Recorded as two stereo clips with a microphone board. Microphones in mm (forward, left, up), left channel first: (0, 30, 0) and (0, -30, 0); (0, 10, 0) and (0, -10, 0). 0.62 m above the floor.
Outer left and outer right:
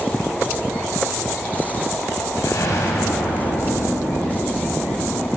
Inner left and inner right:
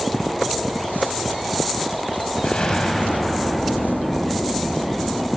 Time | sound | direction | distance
2.4 | an explosion | 75° left (ahead or behind) | 4.5 m